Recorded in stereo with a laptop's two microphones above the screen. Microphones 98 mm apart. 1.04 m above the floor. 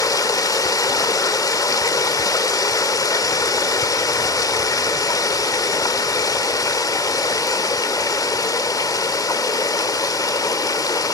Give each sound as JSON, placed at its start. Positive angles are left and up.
{"t": 0.0, "sound": "running water", "side_deg": 35, "distance_m": 0.9}